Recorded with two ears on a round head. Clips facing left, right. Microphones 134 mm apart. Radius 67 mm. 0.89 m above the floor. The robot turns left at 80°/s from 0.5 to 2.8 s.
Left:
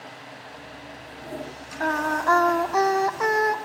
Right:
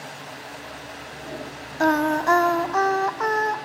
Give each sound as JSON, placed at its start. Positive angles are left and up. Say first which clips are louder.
{"t": 1.8, "sound": "singing", "louder": "right 4 dB", "azimuth_deg": -115, "distance_m": 0.6}